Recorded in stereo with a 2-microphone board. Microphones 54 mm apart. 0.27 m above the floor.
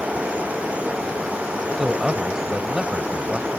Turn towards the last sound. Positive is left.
turn(degrees=-10)  # may be behind; listen again after turning